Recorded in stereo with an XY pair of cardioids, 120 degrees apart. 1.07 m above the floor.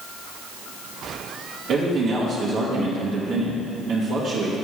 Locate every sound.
1.7 s a man speaking: 60° right, 1.3 m